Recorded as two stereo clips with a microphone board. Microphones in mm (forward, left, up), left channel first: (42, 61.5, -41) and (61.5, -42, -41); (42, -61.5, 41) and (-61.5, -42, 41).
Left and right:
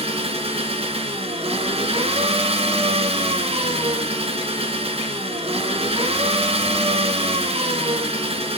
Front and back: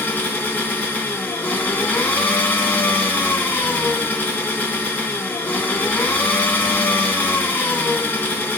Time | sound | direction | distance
0.0 | an engine running | 80° right | 2.5 m